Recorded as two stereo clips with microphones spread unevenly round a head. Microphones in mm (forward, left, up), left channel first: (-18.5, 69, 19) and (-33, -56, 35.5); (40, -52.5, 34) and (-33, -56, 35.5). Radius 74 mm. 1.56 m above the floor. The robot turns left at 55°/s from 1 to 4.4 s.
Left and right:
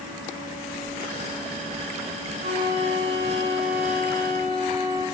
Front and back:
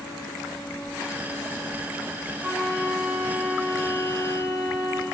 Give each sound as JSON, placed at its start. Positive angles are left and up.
{"t": 2.4, "sound": "a flute", "azimuth_deg": -95, "distance_m": 4.5}